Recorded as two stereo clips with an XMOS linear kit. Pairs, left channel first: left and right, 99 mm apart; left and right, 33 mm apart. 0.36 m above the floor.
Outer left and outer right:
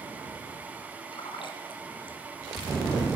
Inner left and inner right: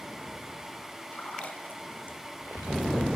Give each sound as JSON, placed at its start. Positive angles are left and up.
{"t": 1.1, "sound": "a splash", "side_deg": 55, "distance_m": 1.6}